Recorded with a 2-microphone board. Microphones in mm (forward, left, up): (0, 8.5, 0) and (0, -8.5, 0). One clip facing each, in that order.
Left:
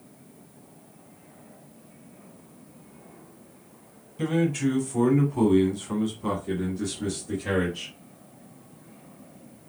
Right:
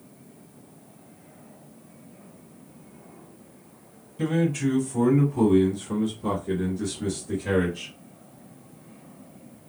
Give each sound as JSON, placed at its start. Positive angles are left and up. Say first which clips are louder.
{"t": 4.2, "sound": "a man speaking", "louder": "even", "side_deg": 15, "distance_m": 1.4}